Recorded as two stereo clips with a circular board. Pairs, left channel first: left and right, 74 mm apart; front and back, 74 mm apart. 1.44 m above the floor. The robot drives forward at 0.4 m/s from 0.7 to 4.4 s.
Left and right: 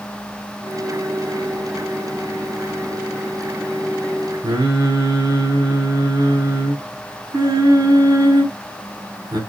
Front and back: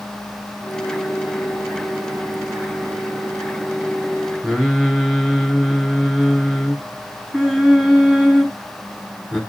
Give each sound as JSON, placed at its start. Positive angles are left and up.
{"t": 4.4, "sound": "singing", "azimuth_deg": -100, "distance_m": 2.5}